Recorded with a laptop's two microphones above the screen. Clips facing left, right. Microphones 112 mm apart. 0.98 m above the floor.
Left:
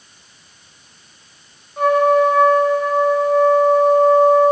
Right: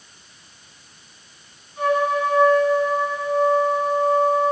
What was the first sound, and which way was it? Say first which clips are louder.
A trumpet: left 7 dB; 55° left (ahead or behind).